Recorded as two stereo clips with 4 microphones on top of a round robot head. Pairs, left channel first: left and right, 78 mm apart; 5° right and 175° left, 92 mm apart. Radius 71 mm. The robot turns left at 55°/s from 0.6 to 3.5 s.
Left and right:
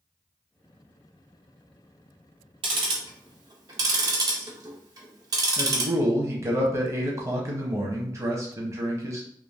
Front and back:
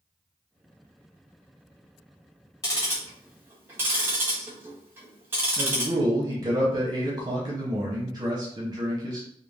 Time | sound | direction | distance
2.6 | ticking | 65° right | 0.6 m
5.6 | a man speaking | 140° right | 0.7 m